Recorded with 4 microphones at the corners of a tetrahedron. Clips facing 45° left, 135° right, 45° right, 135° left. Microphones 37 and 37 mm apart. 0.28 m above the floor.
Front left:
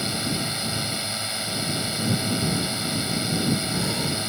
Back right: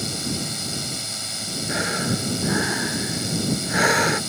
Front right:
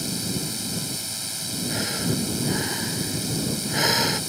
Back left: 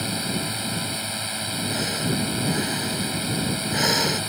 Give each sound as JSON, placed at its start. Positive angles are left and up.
{"t": 0.0, "sound": "a drone", "azimuth_deg": 105}
{"t": 1.7, "sound": "breathing", "azimuth_deg": -130}